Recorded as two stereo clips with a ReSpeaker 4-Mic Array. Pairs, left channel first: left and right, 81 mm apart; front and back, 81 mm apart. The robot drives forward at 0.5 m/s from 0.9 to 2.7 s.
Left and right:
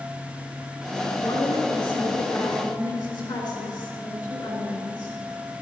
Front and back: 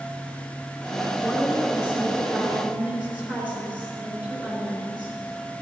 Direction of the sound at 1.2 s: 100° left.